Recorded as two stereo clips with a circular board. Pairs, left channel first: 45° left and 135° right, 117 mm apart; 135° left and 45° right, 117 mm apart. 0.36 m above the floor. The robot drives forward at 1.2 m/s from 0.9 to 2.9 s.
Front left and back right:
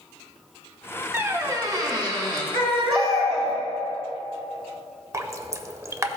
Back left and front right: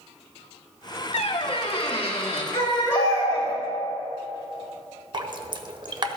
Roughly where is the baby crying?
Behind.